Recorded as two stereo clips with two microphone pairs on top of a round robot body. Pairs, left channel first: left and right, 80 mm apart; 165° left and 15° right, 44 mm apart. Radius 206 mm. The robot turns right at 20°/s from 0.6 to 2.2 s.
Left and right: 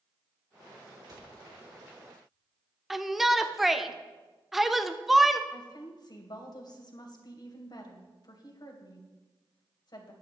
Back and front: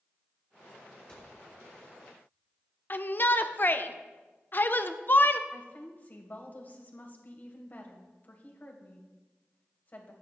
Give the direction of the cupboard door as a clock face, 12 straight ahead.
4 o'clock.